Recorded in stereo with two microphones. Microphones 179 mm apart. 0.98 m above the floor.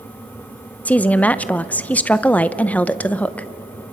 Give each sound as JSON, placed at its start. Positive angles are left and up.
{"t": 0.8, "sound": "a woman speaking", "side_deg": 10, "distance_m": 0.6}